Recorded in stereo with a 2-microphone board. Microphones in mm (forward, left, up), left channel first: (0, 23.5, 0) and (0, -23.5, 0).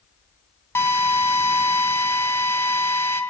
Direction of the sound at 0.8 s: 70° left (ahead or behind).